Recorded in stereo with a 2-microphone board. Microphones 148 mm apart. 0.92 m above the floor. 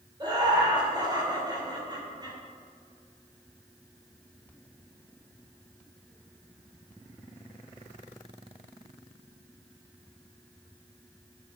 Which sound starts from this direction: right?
Laughter, at 0.2 s.